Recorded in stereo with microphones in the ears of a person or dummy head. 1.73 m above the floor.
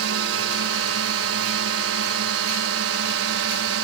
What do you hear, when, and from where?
0.0 s a drone: 70° right (ahead or behind)